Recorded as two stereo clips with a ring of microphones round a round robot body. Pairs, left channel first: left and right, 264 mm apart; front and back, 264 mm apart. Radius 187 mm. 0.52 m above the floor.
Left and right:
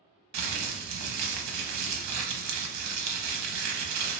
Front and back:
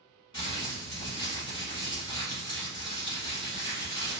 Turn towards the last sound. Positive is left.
turn(degrees=-75)